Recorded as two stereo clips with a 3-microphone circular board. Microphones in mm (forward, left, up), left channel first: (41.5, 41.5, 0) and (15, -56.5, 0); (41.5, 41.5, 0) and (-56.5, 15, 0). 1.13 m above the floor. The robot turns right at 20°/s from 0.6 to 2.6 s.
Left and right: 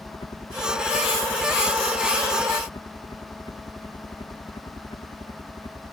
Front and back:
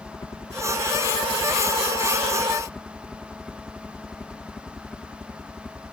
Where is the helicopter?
60° left; by 5.9 s 100° left.